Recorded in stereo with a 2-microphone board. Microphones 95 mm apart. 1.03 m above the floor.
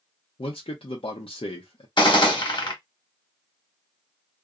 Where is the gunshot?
55° left (ahead or behind), 1.1 m.